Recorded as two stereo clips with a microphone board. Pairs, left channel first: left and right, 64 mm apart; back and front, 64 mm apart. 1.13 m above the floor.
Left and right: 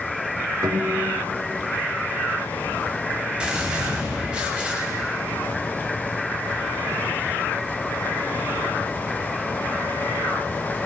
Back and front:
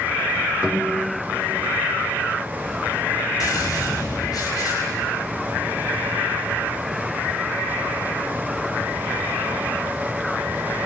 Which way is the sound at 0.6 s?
80° right.